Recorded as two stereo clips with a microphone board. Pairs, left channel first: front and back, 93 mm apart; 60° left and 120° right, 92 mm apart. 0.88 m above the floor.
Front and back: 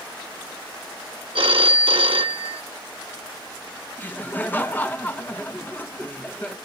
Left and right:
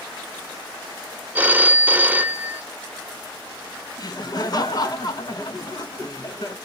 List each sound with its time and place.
1.4 s a phone ringing: 170° left, 0.7 m
4.0 s laughter: 60° left, 1.2 m